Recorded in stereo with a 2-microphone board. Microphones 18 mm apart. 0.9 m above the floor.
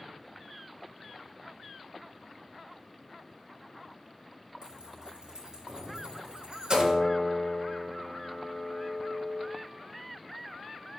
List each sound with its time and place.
4.6 s keys jangling: 55° right (ahead or behind), 3.5 m
6.7 s a piano: 65° left (ahead or behind), 2 m